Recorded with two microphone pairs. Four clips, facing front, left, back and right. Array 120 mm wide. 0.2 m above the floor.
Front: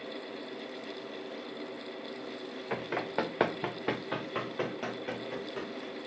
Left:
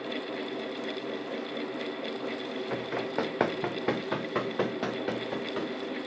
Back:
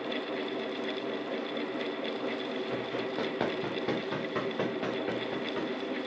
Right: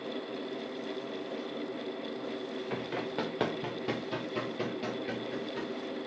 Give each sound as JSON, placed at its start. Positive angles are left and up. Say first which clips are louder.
{"t": 2.7, "sound": "running footsteps", "louder": "left 4 dB, even", "azimuth_deg": 30, "distance_m": 1.4}